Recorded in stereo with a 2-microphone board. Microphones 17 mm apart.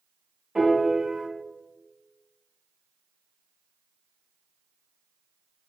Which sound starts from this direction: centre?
A piano, at 0.6 s.